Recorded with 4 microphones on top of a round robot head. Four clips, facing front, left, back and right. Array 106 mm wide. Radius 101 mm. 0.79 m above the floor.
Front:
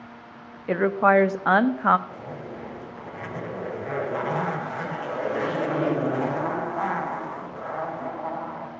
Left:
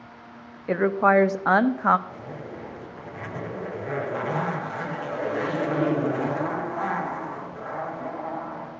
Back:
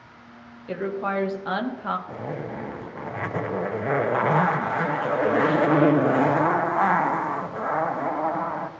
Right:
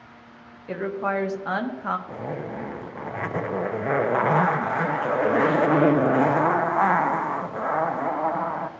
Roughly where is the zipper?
Behind right.